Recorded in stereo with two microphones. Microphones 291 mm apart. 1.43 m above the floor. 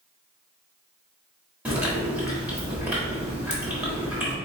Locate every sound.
1.6 s chewing: 5° right (ahead or behind), 1.4 m